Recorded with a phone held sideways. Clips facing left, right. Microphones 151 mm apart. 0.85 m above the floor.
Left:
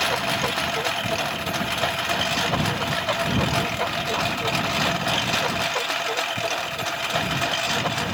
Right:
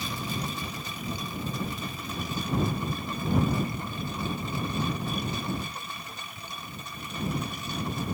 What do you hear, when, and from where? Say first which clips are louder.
0.0 s a lawn mower: left 9 dB; 75° left (ahead or behind); by 8.2 s 85° left